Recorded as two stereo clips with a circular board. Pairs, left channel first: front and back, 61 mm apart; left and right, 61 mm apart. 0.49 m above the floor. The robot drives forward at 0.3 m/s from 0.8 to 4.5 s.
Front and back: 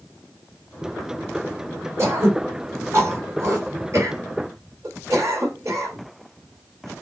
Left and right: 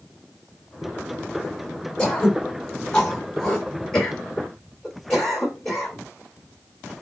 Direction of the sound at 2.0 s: 160° left.